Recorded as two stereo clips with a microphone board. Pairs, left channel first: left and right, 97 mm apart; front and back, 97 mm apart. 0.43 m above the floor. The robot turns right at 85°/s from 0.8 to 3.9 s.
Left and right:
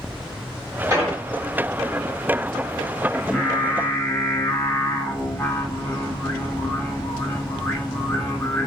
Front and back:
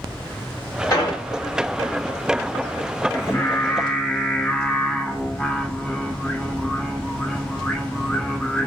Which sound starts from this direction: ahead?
Singing, at 3.1 s.